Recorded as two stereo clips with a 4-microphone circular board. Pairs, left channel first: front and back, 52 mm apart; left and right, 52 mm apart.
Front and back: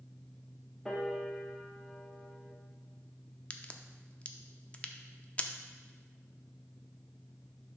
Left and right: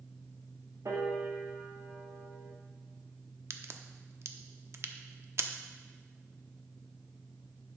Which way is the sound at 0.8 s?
85° right.